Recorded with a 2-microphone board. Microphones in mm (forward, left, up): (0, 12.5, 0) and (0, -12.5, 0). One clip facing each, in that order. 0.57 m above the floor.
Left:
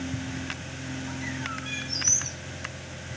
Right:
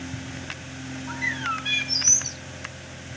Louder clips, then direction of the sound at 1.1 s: Right 9 dB; 35° right (ahead or behind).